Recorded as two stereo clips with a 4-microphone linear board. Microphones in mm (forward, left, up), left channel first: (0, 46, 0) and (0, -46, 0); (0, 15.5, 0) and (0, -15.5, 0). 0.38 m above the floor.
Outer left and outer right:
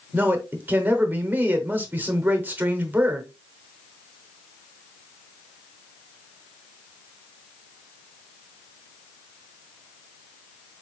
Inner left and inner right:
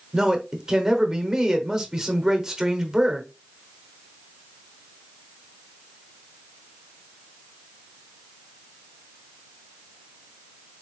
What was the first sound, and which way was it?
A man speaking, 20° right (ahead or behind).